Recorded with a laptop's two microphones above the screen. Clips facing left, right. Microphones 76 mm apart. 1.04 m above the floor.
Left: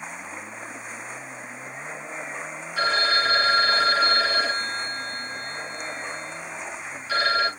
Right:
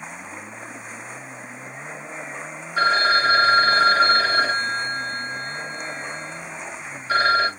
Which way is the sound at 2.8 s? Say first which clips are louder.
Right 5 dB; 35° right (ahead or behind).